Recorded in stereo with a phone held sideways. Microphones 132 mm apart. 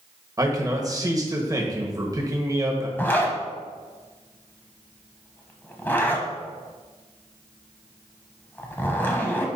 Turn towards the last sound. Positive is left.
turn(degrees=15)  # may be behind; listen again after turning